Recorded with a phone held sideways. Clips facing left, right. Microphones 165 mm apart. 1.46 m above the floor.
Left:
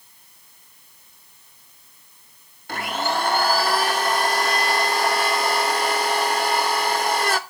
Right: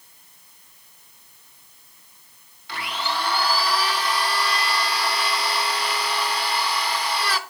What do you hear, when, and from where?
2.7 s a blender: 45° left (ahead or behind), 1.0 m